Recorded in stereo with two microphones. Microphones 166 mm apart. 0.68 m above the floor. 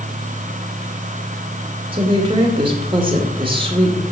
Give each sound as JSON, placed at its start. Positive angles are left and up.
{"t": 1.9, "sound": "a woman speaking", "side_deg": -30, "distance_m": 2.0}